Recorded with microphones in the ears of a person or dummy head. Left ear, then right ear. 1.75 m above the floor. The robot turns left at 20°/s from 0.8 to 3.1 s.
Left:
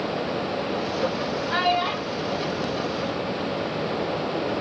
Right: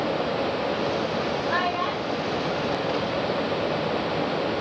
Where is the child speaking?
10° left (ahead or behind), 1.7 m; by 3.9 s 20° right (ahead or behind), 1.7 m.